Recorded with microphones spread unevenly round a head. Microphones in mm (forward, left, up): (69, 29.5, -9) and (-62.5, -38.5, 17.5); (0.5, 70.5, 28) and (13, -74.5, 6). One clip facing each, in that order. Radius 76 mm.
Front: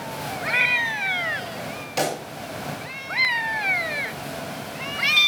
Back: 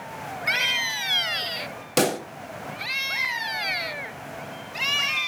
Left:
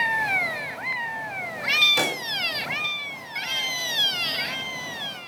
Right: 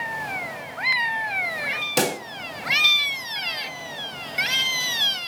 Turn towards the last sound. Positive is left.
turn(degrees=-135)